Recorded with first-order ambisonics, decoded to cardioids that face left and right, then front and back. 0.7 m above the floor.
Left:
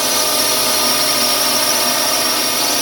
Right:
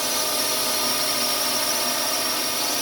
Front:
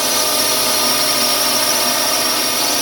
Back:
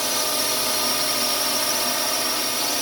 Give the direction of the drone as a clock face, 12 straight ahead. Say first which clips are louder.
Left 8 dB, front 7 dB; 10 o'clock.